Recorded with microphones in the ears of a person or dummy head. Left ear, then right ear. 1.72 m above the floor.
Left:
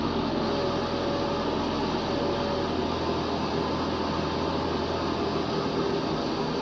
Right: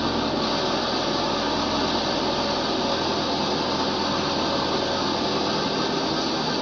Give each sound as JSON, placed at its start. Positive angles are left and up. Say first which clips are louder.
{"t": 0.0, "sound": "an engine running", "louder": "right 4 dB", "side_deg": -55, "distance_m": 2.0}